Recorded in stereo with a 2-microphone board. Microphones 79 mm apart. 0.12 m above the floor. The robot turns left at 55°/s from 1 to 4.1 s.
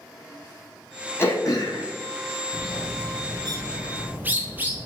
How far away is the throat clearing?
About 0.8 m.